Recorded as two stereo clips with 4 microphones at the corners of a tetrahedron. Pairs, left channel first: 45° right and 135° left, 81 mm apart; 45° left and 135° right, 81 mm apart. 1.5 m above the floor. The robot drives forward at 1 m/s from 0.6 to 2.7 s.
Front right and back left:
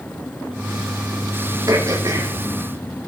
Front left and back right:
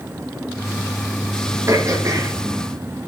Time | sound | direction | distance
1.7 | throat clearing | 175° left | 2.5 m